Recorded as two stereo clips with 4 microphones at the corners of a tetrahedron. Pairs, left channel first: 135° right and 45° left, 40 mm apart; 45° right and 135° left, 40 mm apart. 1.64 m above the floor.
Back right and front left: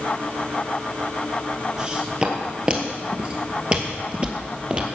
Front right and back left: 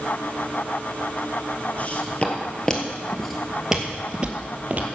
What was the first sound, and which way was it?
Footsteps, 20° right.